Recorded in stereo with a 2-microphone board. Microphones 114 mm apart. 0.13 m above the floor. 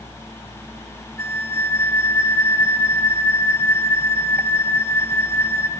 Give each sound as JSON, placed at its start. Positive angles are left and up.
{"t": 1.2, "sound": "a flute", "side_deg": 20, "distance_m": 1.4}